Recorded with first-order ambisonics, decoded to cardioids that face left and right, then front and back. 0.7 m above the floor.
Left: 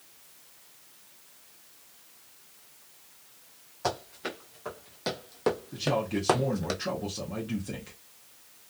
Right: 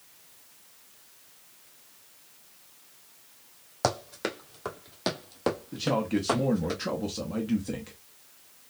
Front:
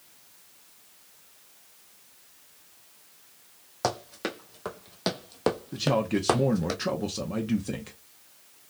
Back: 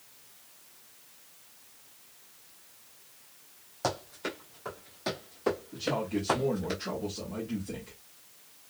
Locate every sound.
3.8 s running footsteps: 60° right, 1.4 m; by 6.7 s 40° left, 1.2 m
5.7 s a man speaking: 15° right, 0.7 m